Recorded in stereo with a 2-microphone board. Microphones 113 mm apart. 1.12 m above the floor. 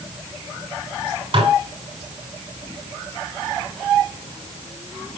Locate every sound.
1.3 s dishes clattering: 50° right (ahead or behind), 2.5 m